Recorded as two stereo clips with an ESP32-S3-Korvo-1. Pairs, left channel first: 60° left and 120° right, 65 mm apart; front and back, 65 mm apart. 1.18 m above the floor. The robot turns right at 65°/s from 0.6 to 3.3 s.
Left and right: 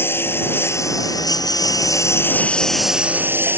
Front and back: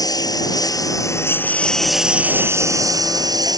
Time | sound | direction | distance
0.0 | a lawn mower | 5° left | ?